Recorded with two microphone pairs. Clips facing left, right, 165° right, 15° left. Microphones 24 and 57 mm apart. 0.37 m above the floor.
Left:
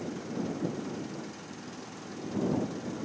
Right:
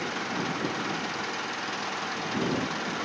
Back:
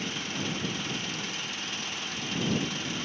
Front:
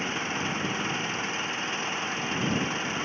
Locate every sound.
0.0 s an engine running: 45° right